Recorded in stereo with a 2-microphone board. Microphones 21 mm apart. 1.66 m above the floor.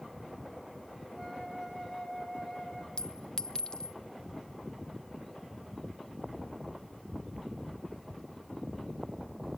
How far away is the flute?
About 5 m.